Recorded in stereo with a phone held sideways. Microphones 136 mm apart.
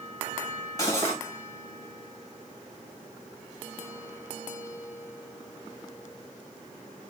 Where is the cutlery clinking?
25° left (ahead or behind), 1.2 m.